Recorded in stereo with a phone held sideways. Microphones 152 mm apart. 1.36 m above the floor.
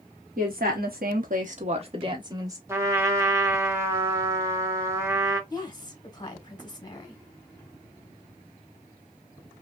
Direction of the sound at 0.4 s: 70° right (ahead or behind).